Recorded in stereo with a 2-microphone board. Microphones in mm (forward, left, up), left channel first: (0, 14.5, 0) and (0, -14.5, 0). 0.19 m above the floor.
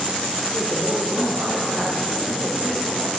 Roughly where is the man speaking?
Right.